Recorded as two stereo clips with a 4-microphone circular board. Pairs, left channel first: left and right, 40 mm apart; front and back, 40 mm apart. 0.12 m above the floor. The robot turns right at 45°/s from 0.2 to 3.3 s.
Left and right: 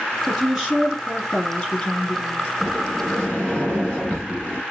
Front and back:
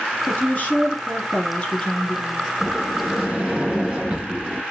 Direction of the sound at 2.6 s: 100° left.